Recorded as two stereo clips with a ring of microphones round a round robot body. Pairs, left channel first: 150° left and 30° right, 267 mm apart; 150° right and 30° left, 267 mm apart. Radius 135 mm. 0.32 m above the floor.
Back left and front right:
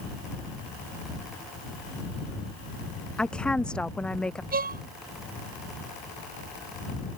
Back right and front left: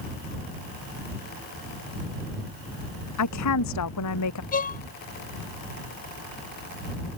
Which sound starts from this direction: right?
A violin, at 4.5 s.